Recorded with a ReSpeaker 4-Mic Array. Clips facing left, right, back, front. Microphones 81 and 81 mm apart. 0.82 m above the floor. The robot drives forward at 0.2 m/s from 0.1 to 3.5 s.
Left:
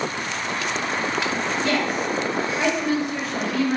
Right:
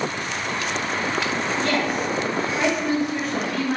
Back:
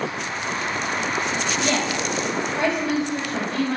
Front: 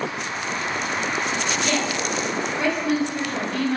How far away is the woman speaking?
About 1.5 m.